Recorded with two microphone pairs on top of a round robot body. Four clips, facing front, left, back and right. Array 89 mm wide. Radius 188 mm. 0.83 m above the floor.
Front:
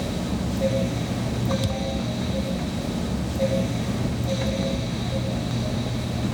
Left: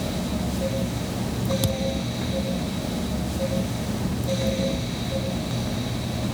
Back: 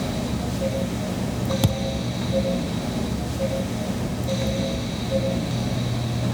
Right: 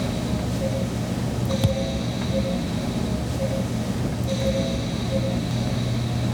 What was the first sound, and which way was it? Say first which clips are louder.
A thud: right 2 dB, back 3 dB; straight behind.